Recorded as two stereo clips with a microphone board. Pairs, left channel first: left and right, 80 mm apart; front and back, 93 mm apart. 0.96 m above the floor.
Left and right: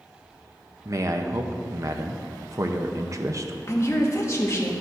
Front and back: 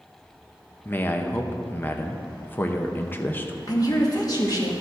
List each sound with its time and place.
0.8 s a man speaking: 60° right, 0.7 m
3.7 s a woman speaking: 40° left, 1.5 m